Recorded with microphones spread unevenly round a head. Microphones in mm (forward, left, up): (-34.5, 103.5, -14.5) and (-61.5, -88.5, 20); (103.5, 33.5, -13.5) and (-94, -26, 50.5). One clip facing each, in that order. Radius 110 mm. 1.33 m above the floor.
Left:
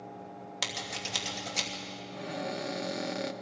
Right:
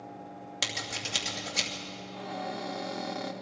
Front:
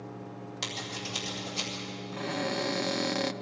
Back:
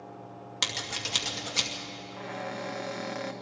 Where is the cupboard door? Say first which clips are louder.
Left 1 dB, front 6 dB; 20° left, 0.7 m.